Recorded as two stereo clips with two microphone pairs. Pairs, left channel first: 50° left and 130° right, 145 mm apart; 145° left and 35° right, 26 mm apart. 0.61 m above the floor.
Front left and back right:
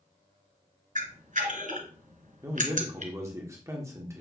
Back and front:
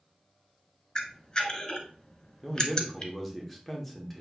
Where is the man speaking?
130° right, 1.0 m.